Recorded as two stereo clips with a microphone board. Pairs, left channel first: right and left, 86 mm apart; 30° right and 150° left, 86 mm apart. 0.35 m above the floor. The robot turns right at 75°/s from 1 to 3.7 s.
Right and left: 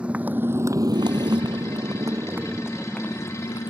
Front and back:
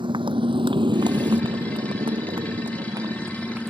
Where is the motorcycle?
165° left; by 3.7 s 120° right.